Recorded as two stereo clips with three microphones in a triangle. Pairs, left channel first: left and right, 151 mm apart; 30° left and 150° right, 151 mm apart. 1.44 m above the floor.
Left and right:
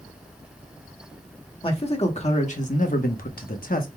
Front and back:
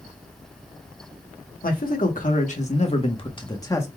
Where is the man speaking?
40° left, 1.3 m; by 3.9 s 100° left, 1.1 m.